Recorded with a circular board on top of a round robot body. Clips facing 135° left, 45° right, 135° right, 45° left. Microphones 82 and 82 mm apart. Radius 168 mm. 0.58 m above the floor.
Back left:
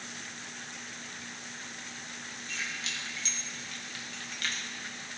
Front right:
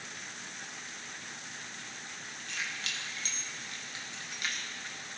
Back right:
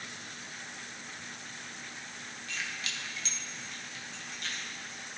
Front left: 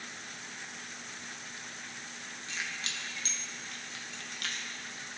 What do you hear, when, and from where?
2.5 s keys jangling: 20° right, 1.5 m; by 4.7 s 40° left, 1.3 m